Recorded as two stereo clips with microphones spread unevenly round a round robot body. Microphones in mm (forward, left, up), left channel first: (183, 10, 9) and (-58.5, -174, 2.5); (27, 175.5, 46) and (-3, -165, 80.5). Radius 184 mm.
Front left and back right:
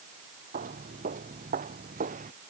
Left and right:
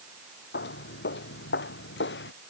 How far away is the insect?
I don't hear an insect.